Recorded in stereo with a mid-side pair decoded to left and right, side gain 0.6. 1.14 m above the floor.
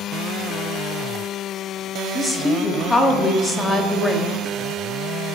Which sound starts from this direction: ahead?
A woman speaking, at 2.1 s.